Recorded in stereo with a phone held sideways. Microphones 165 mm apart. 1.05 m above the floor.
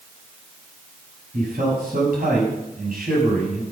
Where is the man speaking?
70° right (ahead or behind), 6.5 m.